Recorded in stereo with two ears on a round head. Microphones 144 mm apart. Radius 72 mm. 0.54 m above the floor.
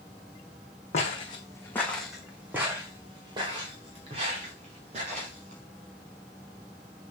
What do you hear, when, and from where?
0.9 s footsteps: 40° left (ahead or behind), 2.5 m; by 5.6 s 45° right (ahead or behind), 6.5 m